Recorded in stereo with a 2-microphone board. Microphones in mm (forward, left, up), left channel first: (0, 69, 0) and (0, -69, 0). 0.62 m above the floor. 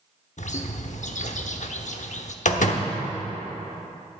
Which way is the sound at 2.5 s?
65° left (ahead or behind).